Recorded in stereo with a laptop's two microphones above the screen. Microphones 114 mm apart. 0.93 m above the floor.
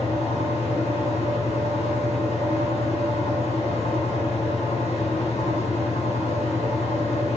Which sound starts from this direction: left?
A fan, at 0.0 s.